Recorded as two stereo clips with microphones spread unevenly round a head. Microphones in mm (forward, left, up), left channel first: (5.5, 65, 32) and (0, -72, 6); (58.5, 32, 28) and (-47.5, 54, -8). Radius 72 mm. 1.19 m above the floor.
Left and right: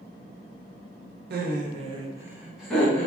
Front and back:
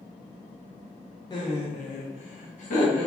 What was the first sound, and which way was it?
Laughter, 75° right.